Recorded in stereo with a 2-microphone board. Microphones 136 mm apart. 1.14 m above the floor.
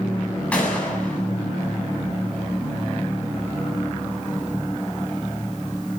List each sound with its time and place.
0.5 s a gunshot: 10° left (ahead or behind), 8 m